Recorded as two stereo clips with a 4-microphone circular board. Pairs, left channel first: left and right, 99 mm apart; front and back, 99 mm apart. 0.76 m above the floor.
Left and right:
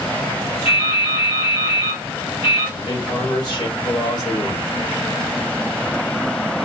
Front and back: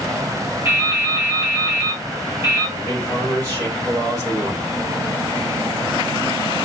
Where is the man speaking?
130° left, 2.5 m.